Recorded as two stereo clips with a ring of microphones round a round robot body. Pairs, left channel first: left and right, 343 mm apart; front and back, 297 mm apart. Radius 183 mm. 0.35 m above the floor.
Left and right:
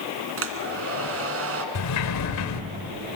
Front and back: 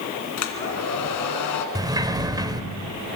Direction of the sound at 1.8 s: 105° left.